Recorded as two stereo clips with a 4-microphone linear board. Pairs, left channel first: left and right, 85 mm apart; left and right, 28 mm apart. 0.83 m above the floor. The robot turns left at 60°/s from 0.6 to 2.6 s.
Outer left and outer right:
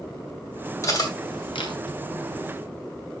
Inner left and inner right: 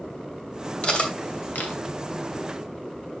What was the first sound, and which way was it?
Cutlery clinking, 35° left (ahead or behind).